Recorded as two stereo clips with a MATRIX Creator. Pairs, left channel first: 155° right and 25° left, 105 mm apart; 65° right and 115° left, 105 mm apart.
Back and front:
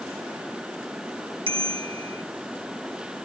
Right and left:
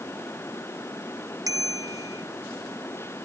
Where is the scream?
I don't hear a scream.